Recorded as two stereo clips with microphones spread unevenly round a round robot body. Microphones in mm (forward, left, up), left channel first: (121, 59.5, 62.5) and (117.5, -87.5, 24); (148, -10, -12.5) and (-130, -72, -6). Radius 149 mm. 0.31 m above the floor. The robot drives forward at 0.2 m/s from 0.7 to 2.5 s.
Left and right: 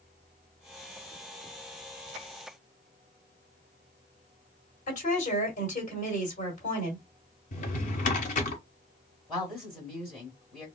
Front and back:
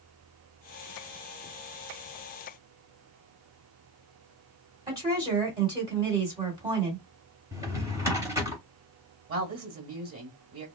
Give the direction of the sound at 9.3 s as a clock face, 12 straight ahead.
6 o'clock.